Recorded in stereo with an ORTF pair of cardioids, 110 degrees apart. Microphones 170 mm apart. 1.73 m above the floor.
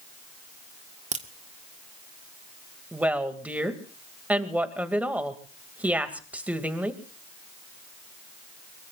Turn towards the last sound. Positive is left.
turn(degrees=-10)